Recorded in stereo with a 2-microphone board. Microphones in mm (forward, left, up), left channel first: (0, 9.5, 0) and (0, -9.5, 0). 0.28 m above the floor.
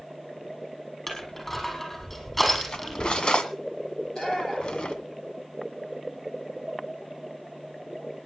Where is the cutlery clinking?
60° left (ahead or behind), 1.6 m.